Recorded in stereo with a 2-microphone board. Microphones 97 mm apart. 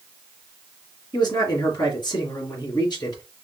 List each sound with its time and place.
1.1 s a man speaking: 50° left (ahead or behind), 2.5 m